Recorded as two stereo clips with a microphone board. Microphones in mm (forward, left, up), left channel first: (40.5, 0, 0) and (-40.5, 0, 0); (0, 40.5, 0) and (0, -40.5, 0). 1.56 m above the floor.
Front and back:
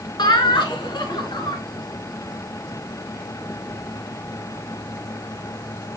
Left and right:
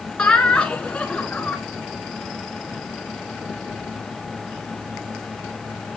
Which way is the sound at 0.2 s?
15° left.